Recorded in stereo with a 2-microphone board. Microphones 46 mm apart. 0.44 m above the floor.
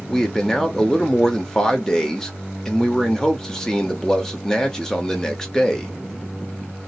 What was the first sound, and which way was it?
A man speaking, 10° left (ahead or behind).